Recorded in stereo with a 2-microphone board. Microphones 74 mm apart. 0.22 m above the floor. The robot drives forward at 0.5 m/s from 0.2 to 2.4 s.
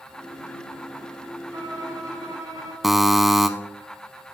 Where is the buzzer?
5° right (ahead or behind), 0.6 m.